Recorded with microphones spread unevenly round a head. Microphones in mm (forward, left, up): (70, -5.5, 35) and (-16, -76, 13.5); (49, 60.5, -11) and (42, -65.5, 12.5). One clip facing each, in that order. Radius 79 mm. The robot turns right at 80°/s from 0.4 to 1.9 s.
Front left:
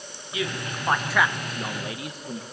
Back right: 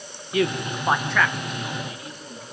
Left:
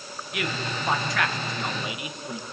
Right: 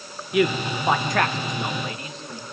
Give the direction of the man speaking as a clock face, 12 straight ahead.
4 o'clock.